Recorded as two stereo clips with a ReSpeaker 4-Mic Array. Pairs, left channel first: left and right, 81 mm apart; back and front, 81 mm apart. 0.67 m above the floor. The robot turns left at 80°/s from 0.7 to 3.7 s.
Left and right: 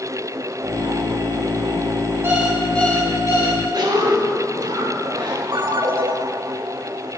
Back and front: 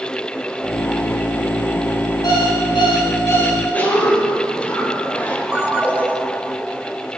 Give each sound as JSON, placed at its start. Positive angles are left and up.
{"t": 2.2, "sound": "an alarm clock", "azimuth_deg": -150, "distance_m": 2.0}
{"t": 3.7, "sound": "a cough", "azimuth_deg": -110, "distance_m": 2.5}
{"t": 5.5, "sound": "a ringtone", "azimuth_deg": -70, "distance_m": 1.1}